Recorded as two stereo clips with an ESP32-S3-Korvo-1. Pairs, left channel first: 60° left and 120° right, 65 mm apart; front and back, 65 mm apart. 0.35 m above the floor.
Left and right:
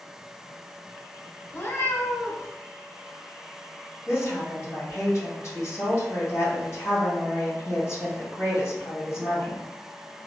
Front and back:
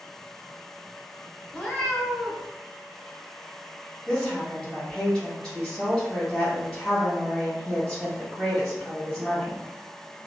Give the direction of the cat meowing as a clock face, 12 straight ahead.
10 o'clock.